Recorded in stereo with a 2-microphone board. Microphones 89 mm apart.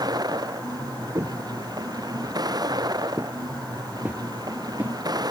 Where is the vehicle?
50° right (ahead or behind).